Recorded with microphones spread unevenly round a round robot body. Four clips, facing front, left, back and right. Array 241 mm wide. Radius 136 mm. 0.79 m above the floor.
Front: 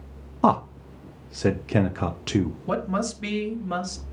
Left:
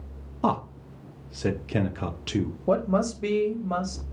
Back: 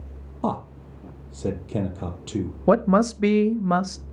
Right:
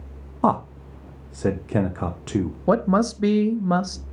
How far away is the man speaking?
About 0.6 m.